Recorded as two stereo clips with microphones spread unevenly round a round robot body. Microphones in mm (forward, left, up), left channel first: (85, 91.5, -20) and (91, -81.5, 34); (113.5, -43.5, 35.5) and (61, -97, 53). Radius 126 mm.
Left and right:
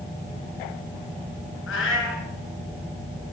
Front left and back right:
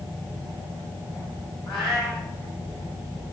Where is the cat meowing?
140° left, 3 m.